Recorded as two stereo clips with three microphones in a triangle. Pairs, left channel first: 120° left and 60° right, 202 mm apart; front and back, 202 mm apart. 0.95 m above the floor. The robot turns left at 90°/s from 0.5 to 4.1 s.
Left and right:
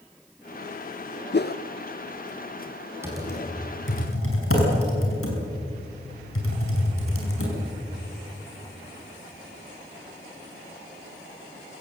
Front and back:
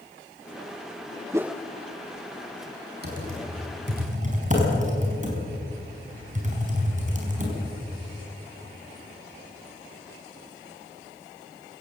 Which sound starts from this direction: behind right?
Typing on a keyboard, at 3.0 s.